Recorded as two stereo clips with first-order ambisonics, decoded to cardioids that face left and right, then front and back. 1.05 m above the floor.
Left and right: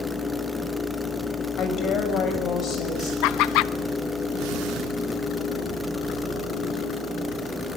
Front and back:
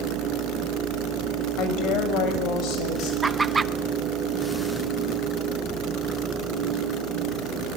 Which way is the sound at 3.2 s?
105° left.